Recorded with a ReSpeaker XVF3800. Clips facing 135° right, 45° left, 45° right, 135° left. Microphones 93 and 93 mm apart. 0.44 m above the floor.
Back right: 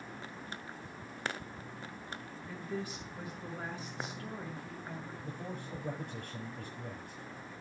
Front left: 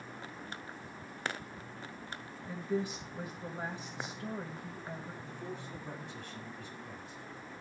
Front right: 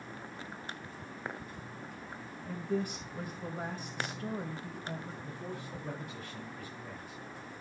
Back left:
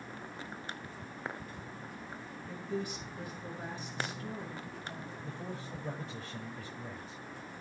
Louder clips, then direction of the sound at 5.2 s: Back right 1 dB, even; 165° right.